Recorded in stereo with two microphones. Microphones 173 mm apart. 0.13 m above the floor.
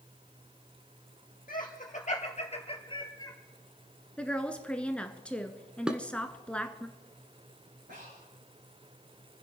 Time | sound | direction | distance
1.5 | laughter | 50° left (ahead or behind) | 3 m
4.2 | a woman speaking | 5° left (ahead or behind) | 1.4 m
5.9 | dishes clattering | 5° right (ahead or behind) | 1.1 m
7.9 | breathing | 80° right | 6.5 m